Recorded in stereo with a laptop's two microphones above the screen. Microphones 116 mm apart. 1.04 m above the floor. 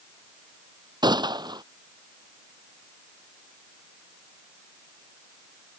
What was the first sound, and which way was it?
A gunshot, 40° right (ahead or behind).